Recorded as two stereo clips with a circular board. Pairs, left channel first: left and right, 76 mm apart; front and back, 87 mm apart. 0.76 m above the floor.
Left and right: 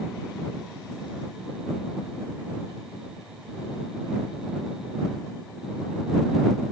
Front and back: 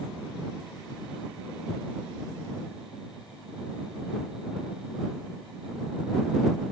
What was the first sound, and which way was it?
Only background noise.